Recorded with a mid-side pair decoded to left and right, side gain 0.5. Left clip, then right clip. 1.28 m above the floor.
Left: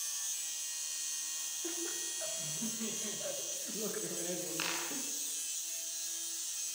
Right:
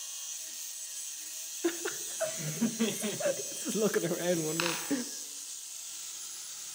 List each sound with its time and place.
1.6 s laughter: 70° right, 1.0 m
4.6 s a dropped coin: 45° right, 7 m